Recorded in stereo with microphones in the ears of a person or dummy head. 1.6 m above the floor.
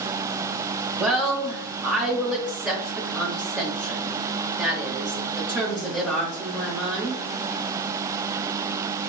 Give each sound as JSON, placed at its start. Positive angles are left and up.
{"t": 1.0, "sound": "a woman speaking", "side_deg": -5, "distance_m": 0.9}